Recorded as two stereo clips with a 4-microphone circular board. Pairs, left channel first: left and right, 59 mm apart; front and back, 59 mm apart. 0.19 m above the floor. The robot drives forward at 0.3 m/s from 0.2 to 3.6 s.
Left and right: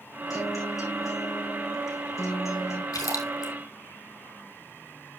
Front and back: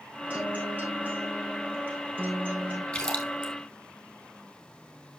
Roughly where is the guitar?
Behind left.